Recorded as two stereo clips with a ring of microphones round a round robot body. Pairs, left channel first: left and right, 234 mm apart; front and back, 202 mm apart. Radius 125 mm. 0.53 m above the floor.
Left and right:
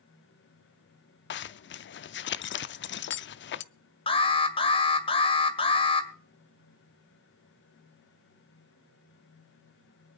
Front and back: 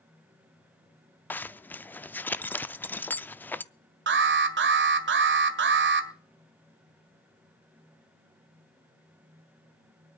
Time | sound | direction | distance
1.3 | a zipper | 80° left | 0.6 m
4.1 | an alarm | 155° left | 2 m